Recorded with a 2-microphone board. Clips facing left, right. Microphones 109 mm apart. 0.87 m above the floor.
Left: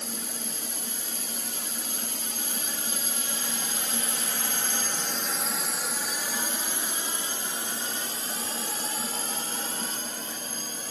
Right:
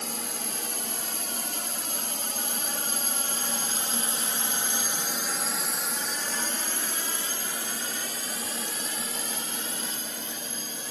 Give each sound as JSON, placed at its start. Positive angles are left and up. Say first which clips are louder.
{"t": 0.0, "sound": "a drone", "louder": "right 2 dB", "side_deg": -70}